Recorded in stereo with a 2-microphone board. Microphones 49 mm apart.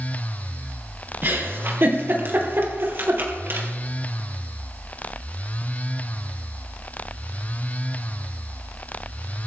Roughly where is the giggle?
Right.